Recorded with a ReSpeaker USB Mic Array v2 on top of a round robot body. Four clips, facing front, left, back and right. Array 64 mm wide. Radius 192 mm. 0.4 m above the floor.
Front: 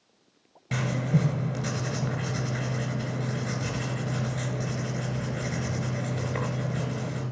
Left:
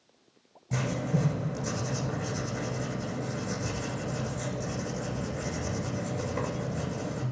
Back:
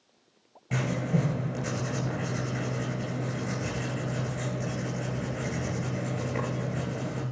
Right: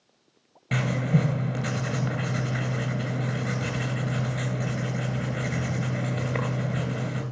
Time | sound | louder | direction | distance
0.7 | writing | right 4 dB, front 1 dB | 80° right | 2.5 m